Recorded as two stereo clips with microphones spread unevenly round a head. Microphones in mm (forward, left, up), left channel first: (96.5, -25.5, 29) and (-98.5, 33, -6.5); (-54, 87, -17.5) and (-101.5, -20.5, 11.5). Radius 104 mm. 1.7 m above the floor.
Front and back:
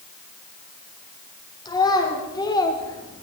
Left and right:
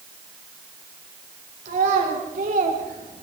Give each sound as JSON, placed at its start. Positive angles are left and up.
{"t": 1.6, "sound": "a child speaking", "azimuth_deg": -85, "distance_m": 5.0}